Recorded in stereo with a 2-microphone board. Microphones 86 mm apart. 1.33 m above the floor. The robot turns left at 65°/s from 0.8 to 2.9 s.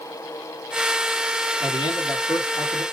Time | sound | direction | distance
1.6 | a man speaking | 95° left | 1.8 m